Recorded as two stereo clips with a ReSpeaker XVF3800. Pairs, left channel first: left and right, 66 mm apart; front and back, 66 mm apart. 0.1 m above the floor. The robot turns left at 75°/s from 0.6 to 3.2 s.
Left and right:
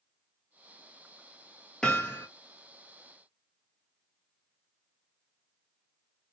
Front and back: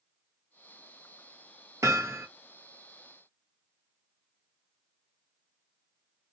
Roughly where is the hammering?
Behind.